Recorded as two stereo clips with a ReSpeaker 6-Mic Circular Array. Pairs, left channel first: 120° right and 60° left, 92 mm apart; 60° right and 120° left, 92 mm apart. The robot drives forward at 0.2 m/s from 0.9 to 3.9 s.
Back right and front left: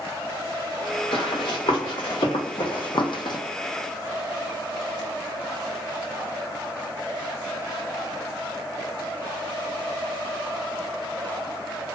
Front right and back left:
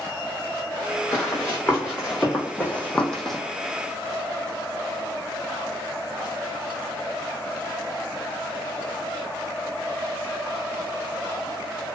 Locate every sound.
1.1 s running footsteps: 125° right, 1.4 m; by 3.4 s 150° right, 0.5 m